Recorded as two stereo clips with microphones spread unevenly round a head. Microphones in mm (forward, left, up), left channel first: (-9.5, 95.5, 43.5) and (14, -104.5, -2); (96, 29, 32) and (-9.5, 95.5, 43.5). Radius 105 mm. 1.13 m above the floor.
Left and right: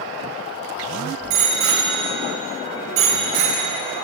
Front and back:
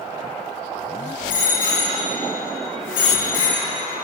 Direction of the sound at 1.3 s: 60° right.